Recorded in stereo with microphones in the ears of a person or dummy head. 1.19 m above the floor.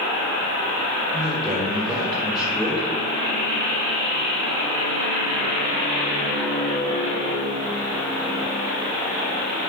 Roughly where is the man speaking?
Centre.